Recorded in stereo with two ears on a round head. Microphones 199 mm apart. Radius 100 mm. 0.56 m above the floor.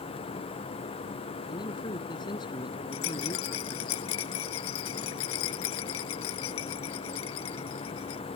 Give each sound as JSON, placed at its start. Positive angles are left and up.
{"t": 1.5, "sound": "a man speaking", "side_deg": 20}
{"t": 2.9, "sound": "a rattle", "side_deg": 70}